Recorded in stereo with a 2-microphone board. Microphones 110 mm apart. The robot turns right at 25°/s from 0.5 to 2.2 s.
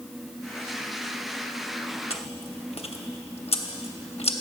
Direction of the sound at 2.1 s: 65° left (ahead or behind).